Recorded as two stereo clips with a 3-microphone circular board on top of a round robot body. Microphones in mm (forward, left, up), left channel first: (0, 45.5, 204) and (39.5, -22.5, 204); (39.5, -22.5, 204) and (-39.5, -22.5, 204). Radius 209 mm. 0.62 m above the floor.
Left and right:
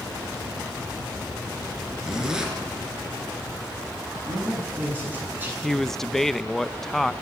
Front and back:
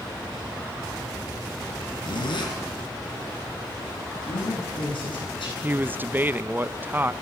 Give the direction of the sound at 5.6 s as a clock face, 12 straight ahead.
5 o'clock.